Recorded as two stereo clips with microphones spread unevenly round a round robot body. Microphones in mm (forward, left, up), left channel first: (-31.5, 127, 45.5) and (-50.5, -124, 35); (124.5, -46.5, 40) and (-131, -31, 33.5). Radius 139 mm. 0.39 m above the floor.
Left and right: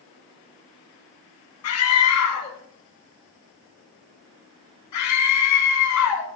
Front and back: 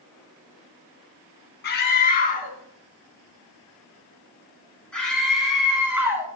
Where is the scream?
50° left, 3.5 m; by 6.3 s 95° left, 4 m.